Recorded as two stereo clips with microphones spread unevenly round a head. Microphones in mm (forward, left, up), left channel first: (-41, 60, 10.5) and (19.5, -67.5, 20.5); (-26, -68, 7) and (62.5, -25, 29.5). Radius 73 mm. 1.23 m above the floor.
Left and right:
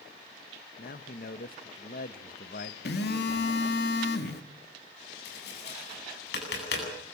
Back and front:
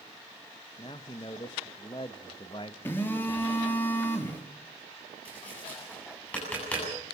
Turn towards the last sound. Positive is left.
turn(degrees=125)